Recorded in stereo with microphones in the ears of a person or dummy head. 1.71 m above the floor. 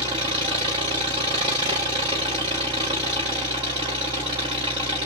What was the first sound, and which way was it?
An engine running, 15° right (ahead or behind).